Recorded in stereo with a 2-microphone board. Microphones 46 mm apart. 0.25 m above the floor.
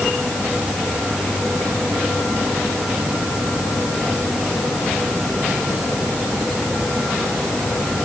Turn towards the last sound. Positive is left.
No sound to turn to.